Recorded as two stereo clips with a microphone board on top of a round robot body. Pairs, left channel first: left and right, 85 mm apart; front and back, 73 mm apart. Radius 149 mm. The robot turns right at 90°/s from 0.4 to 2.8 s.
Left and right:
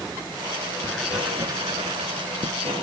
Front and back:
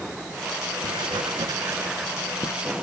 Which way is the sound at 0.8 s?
160° left.